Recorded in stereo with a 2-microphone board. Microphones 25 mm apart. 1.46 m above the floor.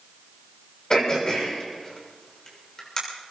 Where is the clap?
I don't hear a clap.